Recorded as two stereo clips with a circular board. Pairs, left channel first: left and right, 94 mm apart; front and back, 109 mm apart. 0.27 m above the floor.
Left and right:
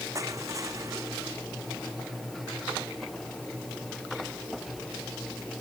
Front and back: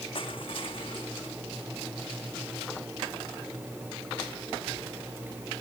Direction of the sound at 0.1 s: 35° right.